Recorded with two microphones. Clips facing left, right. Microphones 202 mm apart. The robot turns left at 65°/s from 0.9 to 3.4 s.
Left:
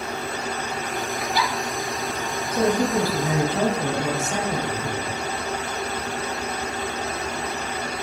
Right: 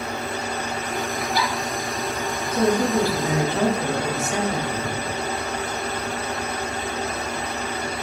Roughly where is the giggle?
Right.